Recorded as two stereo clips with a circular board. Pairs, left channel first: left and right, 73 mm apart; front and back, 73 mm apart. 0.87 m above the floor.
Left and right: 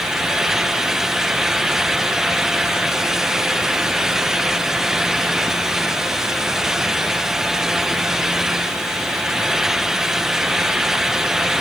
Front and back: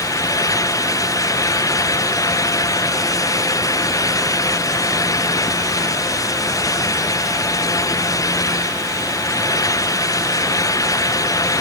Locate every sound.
Only background noise.